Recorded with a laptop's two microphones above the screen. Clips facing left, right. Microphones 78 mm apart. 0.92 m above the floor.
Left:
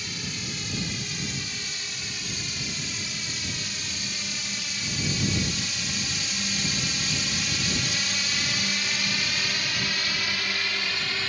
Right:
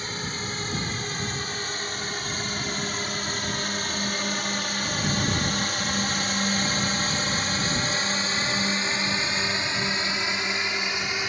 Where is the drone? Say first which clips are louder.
Right 4 dB; 40° right (ahead or behind); by 11.3 s 20° right (ahead or behind).